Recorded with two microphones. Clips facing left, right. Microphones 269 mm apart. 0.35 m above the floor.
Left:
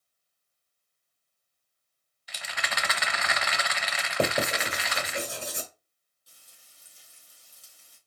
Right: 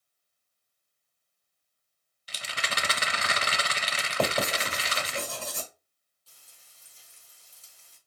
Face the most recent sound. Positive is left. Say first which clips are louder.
# even
turn(degrees=15)  # may be behind; listen again after turning